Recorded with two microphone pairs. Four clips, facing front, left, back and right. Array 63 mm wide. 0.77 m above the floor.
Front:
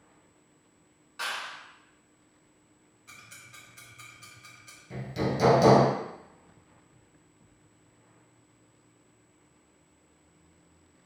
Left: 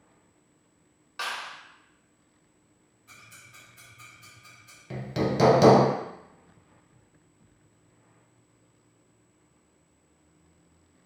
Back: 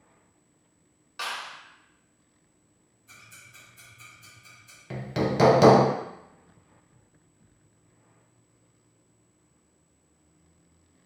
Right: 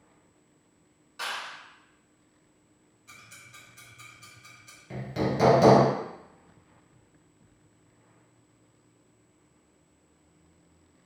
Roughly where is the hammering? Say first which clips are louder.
Left 1 dB, back 3 dB; behind.